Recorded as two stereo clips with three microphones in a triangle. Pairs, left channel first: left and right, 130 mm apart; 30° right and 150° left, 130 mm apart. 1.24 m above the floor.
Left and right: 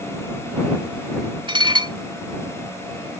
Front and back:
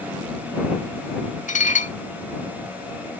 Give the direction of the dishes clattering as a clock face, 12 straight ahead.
1 o'clock.